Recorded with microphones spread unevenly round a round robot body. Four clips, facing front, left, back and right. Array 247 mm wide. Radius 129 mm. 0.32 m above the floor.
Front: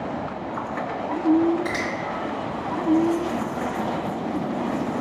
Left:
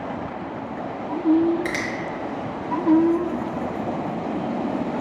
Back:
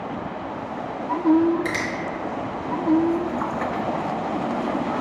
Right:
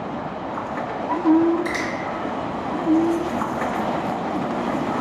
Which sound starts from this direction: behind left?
A finger snap, at 1.6 s.